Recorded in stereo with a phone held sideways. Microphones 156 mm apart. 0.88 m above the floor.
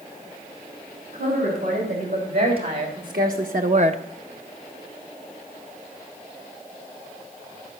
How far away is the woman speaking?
About 3.5 m.